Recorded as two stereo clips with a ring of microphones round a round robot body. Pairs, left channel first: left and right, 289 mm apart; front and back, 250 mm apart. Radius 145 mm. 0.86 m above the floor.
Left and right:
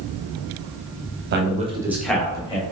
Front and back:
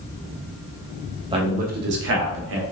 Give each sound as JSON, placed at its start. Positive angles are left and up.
{"t": 1.3, "sound": "a man speaking", "azimuth_deg": -115, "distance_m": 1.0}